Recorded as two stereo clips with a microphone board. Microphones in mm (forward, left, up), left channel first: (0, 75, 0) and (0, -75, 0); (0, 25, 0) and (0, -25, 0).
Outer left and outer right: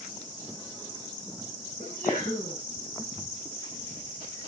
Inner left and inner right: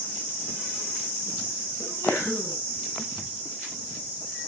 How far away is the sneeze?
About 10 m.